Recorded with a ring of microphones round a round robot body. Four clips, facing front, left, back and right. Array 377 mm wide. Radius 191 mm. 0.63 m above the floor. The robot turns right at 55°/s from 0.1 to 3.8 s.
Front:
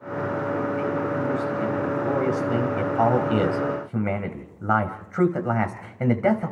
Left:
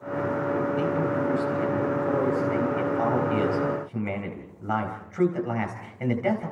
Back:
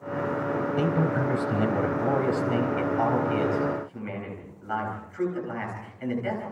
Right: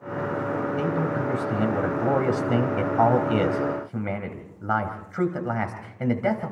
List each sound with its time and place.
0.8 s a man speaking: 175° left, 4.5 m; by 6.5 s 15° right, 4.5 m